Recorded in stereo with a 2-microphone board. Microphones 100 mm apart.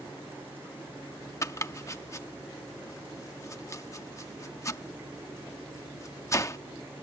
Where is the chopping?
30° left (ahead or behind).